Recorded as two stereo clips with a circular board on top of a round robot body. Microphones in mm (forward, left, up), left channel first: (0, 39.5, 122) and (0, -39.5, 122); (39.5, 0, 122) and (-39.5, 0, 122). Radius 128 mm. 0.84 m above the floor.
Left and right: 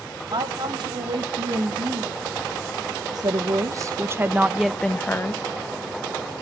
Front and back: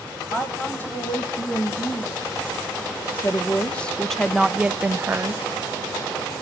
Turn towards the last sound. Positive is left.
turn(degrees=135)